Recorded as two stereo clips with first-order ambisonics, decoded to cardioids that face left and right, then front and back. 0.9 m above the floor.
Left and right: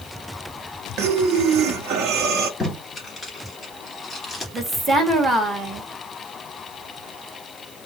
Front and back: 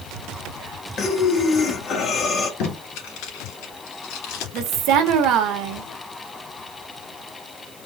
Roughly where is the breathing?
Ahead right.